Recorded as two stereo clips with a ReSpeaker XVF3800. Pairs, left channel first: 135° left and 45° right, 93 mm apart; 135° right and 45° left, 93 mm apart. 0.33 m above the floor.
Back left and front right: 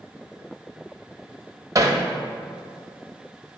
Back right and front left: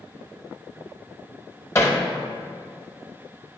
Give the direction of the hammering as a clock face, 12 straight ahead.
3 o'clock.